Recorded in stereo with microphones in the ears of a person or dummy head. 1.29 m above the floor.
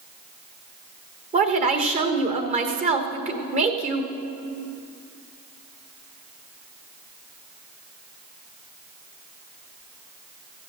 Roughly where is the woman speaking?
Right.